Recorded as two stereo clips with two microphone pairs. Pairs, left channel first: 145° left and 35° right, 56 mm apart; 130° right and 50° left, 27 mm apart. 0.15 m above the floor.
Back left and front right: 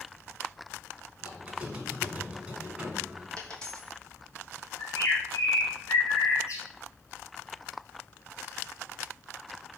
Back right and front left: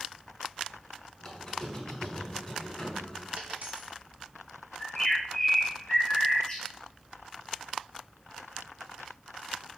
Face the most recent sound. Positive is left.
turn(degrees=160)